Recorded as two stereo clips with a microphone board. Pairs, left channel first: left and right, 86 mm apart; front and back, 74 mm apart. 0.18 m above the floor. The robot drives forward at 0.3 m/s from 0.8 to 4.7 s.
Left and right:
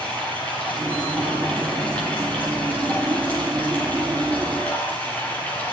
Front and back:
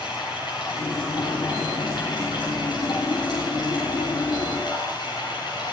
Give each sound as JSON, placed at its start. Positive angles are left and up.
{"t": 0.0, "sound": "running water", "azimuth_deg": 15, "distance_m": 8.5}